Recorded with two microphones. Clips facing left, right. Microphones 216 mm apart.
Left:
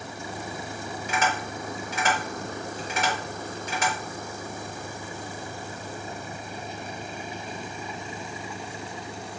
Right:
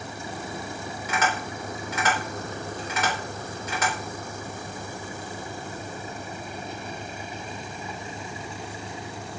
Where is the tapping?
30° left (ahead or behind), 1.7 m.